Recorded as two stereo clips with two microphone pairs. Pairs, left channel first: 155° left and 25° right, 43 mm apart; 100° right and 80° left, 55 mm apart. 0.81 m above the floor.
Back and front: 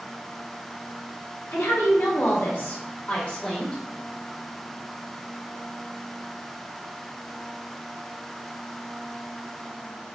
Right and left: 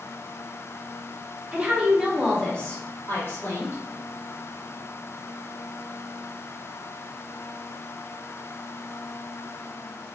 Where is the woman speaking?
155° left, 1.3 m; by 3.8 s 130° right, 1.5 m.